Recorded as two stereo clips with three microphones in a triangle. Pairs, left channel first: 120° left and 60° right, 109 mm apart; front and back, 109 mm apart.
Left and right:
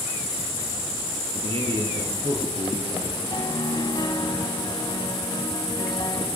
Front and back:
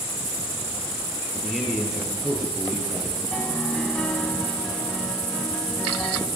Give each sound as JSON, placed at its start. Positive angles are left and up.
{"t": 1.3, "sound": "a man speaking", "azimuth_deg": -90, "distance_m": 6.0}
{"t": 3.3, "sound": "a piano", "azimuth_deg": 80, "distance_m": 1.8}